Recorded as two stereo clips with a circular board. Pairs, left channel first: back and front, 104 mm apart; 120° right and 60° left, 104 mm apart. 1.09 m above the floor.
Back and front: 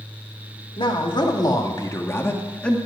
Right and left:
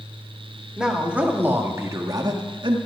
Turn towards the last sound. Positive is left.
turn(degrees=100)